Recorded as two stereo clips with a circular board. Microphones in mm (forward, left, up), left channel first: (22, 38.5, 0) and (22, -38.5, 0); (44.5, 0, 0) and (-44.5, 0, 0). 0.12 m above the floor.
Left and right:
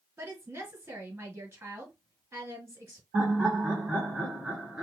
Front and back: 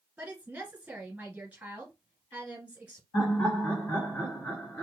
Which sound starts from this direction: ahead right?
Laughter, at 3.1 s.